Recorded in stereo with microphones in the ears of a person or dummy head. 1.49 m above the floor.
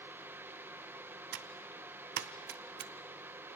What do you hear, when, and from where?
0.0 s a fan: 10° right (ahead or behind), 0.8 m
1.3 s typing on a keyboard: 50° right (ahead or behind), 0.6 m